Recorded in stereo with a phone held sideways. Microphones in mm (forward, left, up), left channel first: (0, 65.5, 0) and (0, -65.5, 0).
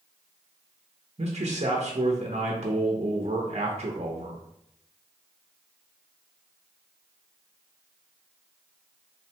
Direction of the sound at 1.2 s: 55° right (ahead or behind).